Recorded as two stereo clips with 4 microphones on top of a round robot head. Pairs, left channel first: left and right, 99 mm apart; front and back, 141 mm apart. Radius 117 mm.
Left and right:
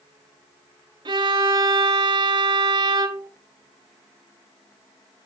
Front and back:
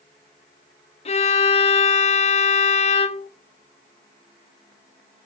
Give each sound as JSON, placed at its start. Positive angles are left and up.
{"t": 1.1, "sound": "a violin", "azimuth_deg": -45, "distance_m": 1.2}